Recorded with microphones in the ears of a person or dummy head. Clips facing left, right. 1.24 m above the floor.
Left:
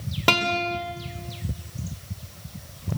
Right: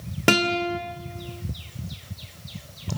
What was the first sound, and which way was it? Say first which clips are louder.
A guitar: right 3 dB; 25° right (ahead or behind).